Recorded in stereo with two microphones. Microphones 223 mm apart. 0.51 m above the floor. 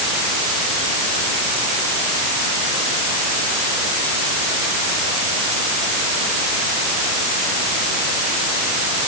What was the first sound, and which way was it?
Only background noise.